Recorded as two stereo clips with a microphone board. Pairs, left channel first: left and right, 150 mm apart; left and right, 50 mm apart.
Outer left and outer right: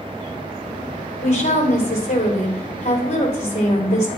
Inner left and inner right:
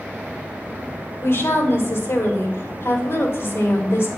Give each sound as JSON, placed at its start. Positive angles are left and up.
{"t": 1.2, "sound": "a woman speaking", "side_deg": 50, "distance_m": 2.5}